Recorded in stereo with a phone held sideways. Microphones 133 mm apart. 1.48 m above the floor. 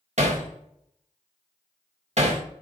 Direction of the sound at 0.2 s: 55° right (ahead or behind).